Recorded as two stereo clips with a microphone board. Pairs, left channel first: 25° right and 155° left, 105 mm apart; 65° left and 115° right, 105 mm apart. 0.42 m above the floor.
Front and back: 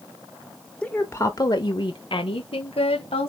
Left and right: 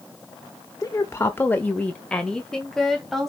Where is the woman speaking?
45° left, 0.9 m; by 3.3 s 25° right, 2 m.